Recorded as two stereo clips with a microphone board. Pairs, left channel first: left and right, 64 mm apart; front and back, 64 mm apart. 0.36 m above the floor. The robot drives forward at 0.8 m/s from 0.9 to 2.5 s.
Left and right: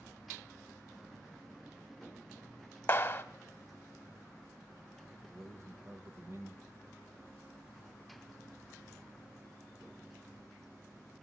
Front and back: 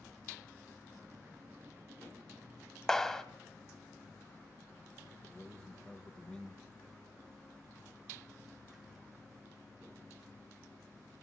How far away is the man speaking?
About 1.6 m.